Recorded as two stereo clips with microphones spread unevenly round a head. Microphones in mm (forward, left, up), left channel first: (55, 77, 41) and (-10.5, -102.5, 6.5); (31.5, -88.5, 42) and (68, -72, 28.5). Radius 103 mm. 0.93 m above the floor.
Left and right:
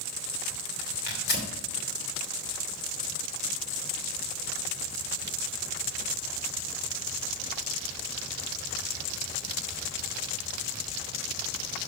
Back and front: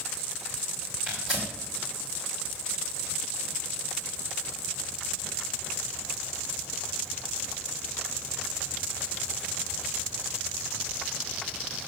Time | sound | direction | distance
1.1 | tearing paper | 115° left | 2.5 m